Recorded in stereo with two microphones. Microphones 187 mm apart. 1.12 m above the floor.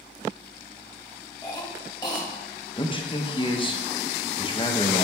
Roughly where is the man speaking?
Left.